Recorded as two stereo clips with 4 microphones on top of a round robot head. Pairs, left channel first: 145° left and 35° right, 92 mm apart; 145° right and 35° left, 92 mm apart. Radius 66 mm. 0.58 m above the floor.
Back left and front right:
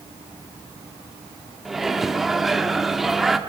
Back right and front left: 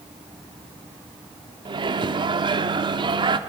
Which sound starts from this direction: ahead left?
A microwave, at 1.6 s.